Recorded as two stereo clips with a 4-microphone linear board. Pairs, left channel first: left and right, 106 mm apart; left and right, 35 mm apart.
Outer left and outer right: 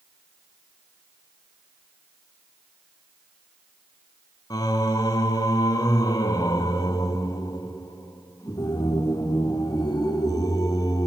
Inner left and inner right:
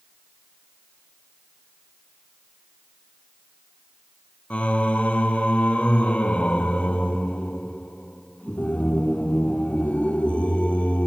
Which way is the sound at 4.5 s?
35° left (ahead or behind).